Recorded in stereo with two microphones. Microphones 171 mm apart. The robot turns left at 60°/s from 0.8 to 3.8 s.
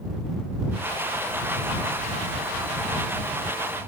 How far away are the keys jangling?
No keys jangling in this recording.